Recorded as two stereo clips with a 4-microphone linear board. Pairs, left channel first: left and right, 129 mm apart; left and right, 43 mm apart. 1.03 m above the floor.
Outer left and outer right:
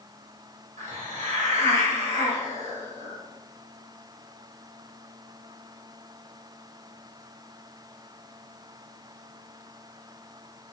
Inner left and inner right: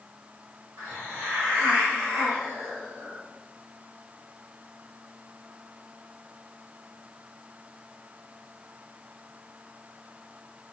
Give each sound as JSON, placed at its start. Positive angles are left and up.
{"t": 0.8, "sound": "a hiss", "side_deg": -75, "distance_m": 1.6}